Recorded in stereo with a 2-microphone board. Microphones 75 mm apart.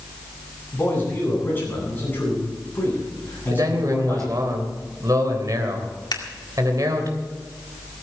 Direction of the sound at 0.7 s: 25° left (ahead or behind).